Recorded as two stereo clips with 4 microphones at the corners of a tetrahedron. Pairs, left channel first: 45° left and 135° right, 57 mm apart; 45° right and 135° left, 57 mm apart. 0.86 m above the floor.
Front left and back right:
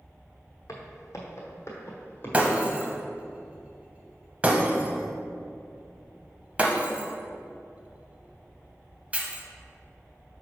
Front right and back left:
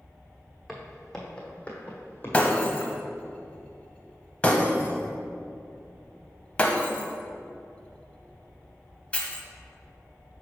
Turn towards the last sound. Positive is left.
turn(degrees=-95)